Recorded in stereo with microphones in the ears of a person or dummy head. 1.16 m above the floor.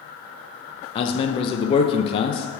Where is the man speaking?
35° left (ahead or behind), 0.5 m.